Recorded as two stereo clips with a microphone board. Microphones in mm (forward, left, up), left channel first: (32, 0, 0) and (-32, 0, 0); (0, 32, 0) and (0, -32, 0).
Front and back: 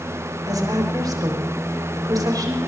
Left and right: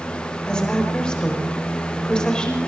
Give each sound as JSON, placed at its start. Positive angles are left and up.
{"t": 0.5, "sound": "a woman speaking", "azimuth_deg": 165, "distance_m": 4.5}